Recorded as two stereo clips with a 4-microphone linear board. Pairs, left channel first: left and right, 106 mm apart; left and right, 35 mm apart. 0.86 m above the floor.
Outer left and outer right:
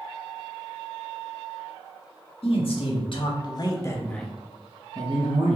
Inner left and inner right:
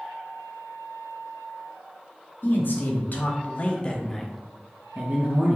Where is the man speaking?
60° left (ahead or behind), 1.3 m; by 5.6 s 60° right (ahead or behind), 0.9 m.